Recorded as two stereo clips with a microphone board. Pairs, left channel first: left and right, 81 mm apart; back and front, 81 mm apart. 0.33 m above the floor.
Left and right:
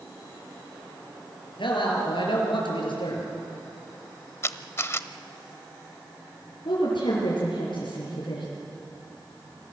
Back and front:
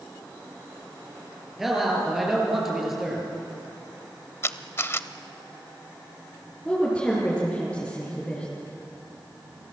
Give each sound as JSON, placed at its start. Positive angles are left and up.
{"t": 1.6, "sound": "a man speaking", "azimuth_deg": 85, "distance_m": 7.0}
{"t": 4.4, "sound": "a camera shutter", "azimuth_deg": 135, "distance_m": 0.8}
{"t": 6.7, "sound": "a woman speaking", "azimuth_deg": 105, "distance_m": 6.5}